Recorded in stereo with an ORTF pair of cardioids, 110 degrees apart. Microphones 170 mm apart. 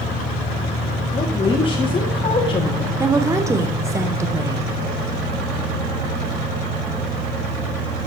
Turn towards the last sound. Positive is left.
turn(degrees=-20)